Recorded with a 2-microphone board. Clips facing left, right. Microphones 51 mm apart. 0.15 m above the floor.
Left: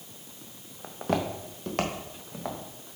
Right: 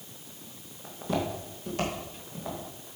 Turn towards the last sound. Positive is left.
turn(degrees=65)  # may be behind; listen again after turning